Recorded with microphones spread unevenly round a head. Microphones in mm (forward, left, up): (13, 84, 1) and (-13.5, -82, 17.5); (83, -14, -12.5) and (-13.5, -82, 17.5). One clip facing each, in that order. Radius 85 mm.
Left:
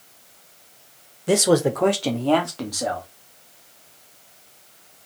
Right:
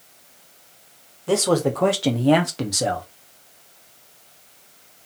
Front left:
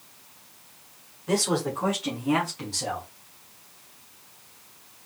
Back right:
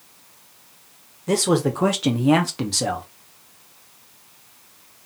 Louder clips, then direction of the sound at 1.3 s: Left 2 dB, back right 6 dB; 150° left.